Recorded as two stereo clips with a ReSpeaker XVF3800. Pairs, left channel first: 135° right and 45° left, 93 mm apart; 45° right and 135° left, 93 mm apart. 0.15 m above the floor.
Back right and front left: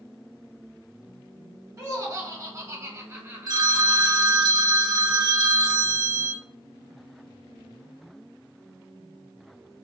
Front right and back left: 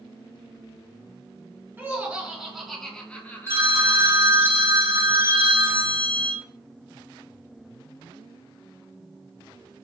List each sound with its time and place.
1.8 s laughter: 75° left, 1.6 m; by 4.4 s 30° right, 1.6 m
3.5 s a phone ringing: 80° left, 1.3 m